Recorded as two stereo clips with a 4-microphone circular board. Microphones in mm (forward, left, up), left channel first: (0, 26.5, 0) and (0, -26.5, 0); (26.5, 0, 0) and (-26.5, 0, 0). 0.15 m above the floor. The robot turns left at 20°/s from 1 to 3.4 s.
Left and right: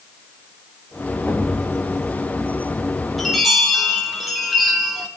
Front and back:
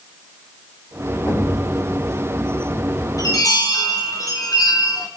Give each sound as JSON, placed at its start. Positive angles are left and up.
{"t": 1.3, "sound": "a thud", "azimuth_deg": 30, "distance_m": 7.5}
{"t": 3.2, "sound": "a chime", "azimuth_deg": 5, "distance_m": 4.0}